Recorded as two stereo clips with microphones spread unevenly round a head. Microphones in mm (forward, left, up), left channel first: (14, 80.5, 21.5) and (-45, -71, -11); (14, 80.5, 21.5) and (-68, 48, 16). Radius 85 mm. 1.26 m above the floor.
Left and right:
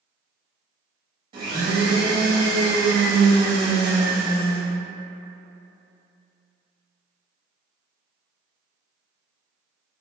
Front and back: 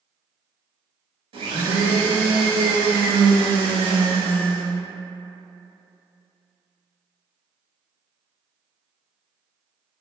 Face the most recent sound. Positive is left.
turn(degrees=-175)